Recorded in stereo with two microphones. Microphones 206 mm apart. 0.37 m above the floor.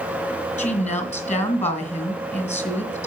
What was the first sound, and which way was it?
A woman speaking, 35° left (ahead or behind).